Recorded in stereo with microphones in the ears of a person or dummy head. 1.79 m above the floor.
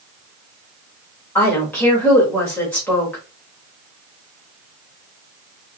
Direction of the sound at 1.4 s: 10° left (ahead or behind).